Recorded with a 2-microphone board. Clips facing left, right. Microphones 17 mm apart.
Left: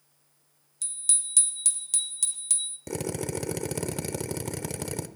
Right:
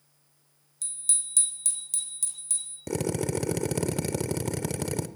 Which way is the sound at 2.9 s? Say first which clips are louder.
Right 5 dB; centre (ahead or behind).